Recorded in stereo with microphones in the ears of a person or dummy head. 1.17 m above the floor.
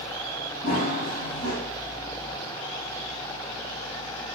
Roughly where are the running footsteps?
Left.